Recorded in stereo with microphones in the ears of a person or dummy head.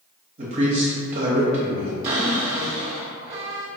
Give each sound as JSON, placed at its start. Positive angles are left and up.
{"t": 0.4, "sound": "a man speaking", "side_deg": -45, "distance_m": 1.0}
{"t": 2.0, "sound": "a cupboard door", "side_deg": -45, "distance_m": 0.8}